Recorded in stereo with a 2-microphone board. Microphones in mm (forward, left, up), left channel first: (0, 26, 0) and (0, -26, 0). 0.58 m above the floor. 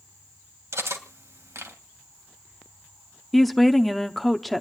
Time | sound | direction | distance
0.7 | cutlery clinking | 75° right (ahead or behind) | 2.5 m
3.3 | a woman speaking | centre (ahead or behind) | 0.8 m